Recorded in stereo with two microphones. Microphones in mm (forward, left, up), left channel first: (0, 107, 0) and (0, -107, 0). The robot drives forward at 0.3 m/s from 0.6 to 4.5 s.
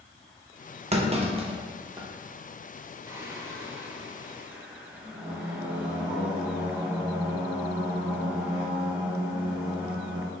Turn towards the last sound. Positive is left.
turn(degrees=-10)  # may be behind; listen again after turning